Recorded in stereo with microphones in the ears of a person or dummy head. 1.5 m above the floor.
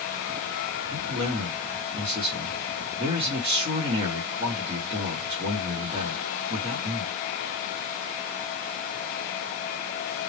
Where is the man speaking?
25° right (ahead or behind), 1.1 m.